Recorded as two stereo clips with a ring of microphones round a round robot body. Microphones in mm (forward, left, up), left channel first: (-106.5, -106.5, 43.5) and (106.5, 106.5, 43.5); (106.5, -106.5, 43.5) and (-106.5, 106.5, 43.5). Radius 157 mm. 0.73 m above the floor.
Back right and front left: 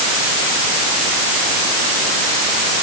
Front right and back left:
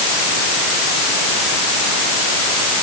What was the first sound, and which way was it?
Only background noise.